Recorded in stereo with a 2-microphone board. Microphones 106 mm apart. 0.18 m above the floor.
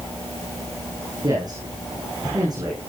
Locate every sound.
1.2 s a man speaking: 40° right (ahead or behind), 7 m